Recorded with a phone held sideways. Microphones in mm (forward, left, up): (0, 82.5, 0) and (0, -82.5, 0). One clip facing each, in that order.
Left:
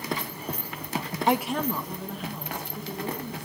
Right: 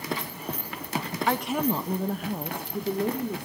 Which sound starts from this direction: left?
A woman speaking, at 1.3 s.